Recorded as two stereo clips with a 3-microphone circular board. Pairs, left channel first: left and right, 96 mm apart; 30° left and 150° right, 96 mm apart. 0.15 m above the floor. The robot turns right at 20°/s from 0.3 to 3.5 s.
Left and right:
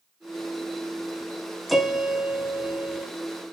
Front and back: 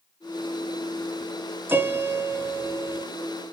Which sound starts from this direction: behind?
A piano, at 1.7 s.